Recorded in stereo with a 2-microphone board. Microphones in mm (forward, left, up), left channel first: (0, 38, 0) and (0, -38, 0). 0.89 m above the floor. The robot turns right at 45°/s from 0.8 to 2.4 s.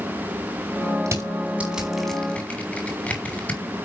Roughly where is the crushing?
Right.